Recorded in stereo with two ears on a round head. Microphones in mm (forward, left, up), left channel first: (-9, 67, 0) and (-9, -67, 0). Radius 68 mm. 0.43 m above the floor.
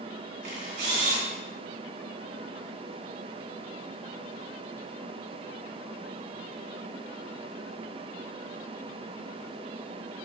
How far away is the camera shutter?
About 2.5 m.